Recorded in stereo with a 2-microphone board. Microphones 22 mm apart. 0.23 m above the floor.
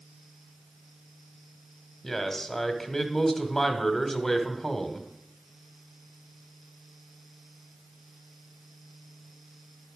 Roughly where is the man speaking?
Centre.